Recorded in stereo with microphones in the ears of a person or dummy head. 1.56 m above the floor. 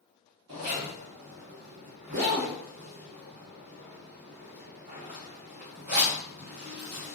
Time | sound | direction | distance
0.5 | a zipper | 50° right (ahead or behind) | 0.9 m